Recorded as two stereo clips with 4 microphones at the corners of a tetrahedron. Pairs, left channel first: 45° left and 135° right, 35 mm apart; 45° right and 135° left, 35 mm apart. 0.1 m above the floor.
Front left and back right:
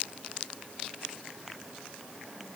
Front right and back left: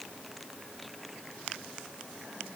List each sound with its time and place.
Only background noise.